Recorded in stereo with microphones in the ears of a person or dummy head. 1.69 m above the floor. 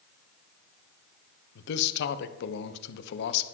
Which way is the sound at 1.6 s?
70° left (ahead or behind).